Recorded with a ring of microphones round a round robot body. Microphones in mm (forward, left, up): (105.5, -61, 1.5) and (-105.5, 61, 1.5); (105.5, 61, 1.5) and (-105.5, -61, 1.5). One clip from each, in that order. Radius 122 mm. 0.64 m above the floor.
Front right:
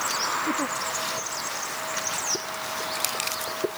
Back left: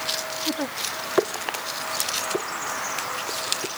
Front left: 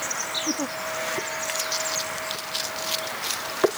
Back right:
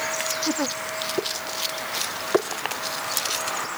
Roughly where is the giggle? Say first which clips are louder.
Front right 1 dB, back right 2 dB; behind right.